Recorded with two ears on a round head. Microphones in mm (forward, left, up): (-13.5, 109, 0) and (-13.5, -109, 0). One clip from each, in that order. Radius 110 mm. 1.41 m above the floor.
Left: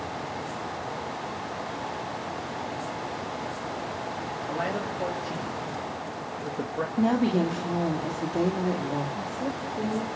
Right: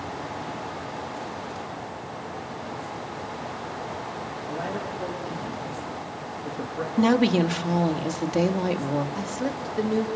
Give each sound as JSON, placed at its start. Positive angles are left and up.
{"t": 4.5, "sound": "a man speaking", "side_deg": 50, "distance_m": 3.5}
{"t": 7.0, "sound": "a woman speaking", "side_deg": -75, "distance_m": 2.0}
{"t": 9.2, "sound": "a woman speaking", "side_deg": -75, "distance_m": 2.5}